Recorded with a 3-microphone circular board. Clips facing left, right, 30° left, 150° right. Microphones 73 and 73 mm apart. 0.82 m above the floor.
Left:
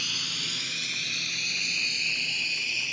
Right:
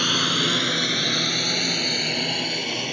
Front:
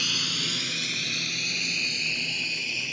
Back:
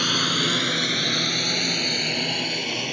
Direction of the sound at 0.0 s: 115° right.